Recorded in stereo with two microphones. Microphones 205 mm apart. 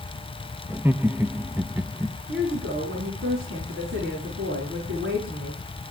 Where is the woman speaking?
70° right (ahead or behind), 8.5 m.